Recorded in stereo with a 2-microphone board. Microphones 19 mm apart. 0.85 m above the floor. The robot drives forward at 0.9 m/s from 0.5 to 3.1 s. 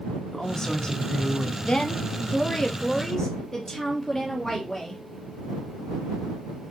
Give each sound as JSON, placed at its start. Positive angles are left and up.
{"t": 0.3, "sound": "a woman speaking", "side_deg": 30, "distance_m": 1.9}
{"t": 1.6, "sound": "a woman speaking", "side_deg": 45, "distance_m": 0.9}